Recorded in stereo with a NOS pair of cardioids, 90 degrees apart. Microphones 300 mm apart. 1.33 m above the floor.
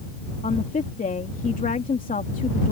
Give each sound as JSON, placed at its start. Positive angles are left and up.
{"t": 0.4, "sound": "a woman speaking", "azimuth_deg": 25}